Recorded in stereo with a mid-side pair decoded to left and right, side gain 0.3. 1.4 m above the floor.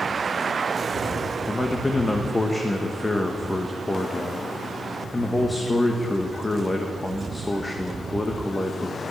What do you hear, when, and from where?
1.5 s a man speaking: 20° left, 1.2 m